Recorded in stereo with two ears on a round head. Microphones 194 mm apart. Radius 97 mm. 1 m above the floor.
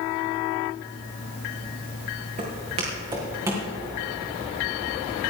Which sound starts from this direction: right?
Footsteps, at 2.4 s.